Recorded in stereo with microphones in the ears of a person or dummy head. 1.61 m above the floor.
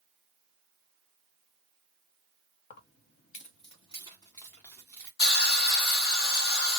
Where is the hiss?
70° left (ahead or behind), 1.3 m.